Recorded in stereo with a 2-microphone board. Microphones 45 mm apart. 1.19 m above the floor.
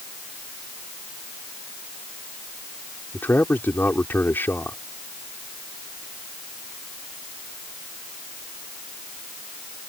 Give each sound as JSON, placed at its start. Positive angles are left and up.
{"t": 3.1, "sound": "a man speaking", "side_deg": 55}